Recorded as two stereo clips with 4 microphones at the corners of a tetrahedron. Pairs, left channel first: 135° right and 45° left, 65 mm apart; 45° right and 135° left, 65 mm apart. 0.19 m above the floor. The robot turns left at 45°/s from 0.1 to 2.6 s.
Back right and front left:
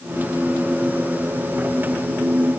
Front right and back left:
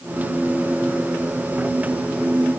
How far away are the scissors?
No scissors in this recording.